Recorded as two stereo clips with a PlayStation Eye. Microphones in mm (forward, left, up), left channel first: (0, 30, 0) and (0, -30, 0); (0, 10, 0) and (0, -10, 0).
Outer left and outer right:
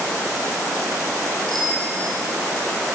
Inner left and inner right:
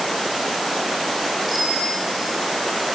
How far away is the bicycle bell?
About 5.5 m.